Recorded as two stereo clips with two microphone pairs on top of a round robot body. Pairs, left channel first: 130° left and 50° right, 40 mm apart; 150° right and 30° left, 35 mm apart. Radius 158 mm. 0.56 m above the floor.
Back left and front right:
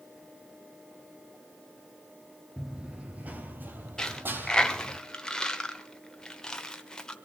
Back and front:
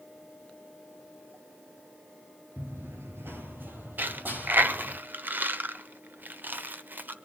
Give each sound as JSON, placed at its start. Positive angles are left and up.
{"t": 2.6, "sound": "running footsteps", "azimuth_deg": 50, "distance_m": 0.6}
{"t": 4.0, "sound": "a dropped coin", "azimuth_deg": 60, "distance_m": 1.1}